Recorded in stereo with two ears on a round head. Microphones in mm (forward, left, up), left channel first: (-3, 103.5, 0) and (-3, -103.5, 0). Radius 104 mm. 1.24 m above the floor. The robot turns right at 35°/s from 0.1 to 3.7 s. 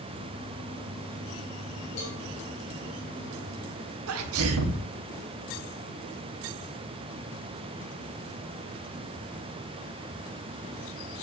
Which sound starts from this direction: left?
A cowbell, at 2.0 s.